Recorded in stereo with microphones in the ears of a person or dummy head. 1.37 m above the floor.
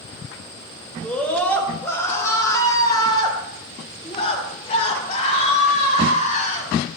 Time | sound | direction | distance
1.0 | a scream | 5° left (ahead or behind) | 4.5 m